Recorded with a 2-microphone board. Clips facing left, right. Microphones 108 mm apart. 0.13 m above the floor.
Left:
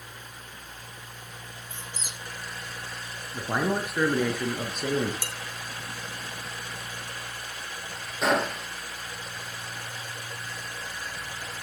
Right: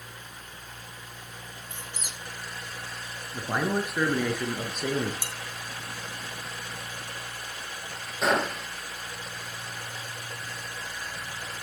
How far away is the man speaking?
About 1.8 m.